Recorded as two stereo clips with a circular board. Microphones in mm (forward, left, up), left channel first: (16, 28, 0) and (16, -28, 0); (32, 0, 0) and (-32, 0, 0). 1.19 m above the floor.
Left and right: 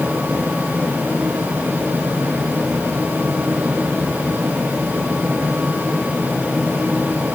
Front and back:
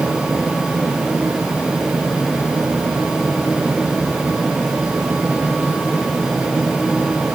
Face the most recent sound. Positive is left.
No sound to turn to.